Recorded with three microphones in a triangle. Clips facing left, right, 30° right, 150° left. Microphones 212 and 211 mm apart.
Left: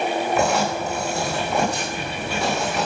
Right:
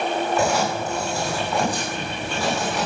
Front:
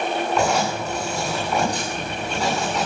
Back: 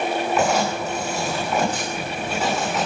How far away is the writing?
About 9.5 m.